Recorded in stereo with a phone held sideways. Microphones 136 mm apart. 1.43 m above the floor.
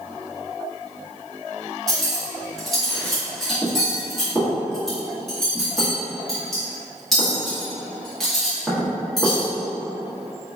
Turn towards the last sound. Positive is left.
turn(degrees=0)  # may be behind; listen again after turning